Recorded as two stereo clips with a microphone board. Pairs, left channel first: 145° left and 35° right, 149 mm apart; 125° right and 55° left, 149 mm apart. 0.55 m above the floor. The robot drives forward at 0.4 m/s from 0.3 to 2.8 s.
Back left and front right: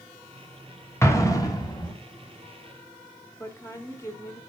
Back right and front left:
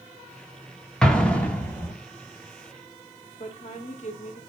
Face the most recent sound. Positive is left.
turn(degrees=-150)